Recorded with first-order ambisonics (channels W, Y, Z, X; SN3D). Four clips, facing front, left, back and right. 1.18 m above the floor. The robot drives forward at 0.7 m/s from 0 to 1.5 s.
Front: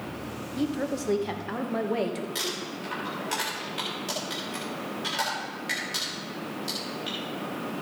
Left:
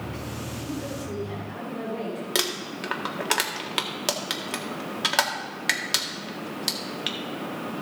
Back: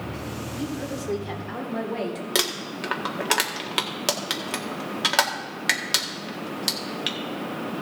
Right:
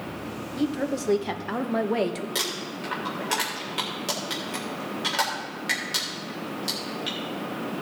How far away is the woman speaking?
About 1.5 m.